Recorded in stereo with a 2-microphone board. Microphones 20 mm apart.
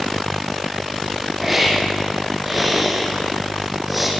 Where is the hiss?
5° right (ahead or behind), 5 m.